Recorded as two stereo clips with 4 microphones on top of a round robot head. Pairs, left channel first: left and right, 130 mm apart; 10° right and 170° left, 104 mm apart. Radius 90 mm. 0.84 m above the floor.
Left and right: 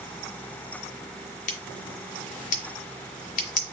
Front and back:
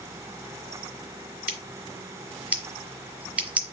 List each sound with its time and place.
1.5 s scissors: 95° left, 0.8 m